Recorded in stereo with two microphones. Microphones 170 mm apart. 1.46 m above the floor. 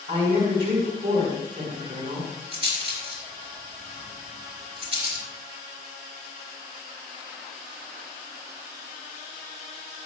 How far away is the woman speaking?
About 4.5 m.